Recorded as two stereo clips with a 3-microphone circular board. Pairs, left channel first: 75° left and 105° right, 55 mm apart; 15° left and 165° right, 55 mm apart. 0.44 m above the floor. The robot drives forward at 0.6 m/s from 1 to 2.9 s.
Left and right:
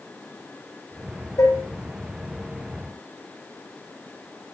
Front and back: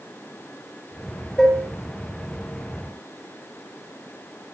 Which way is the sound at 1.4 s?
100° left.